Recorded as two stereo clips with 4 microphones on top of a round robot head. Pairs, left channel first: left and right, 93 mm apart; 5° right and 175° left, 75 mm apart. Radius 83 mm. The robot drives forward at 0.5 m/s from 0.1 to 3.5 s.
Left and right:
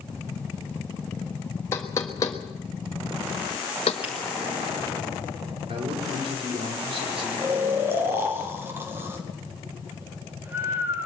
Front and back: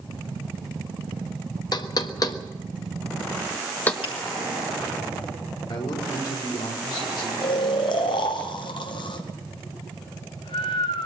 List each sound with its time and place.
1.7 s knocking: 20° left, 1.5 m; by 3.9 s 55° left, 0.9 m
4.0 s a finger snap: 10° right, 5 m
5.7 s a man speaking: 50° right, 5.5 m
7.4 s snoring: 20° right, 2 m